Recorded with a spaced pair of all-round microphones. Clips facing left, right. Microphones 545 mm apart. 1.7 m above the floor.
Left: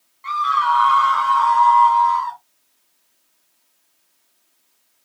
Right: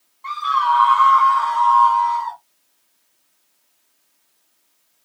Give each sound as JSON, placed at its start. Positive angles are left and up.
{"t": 0.2, "sound": "a scream", "side_deg": 45, "distance_m": 0.7}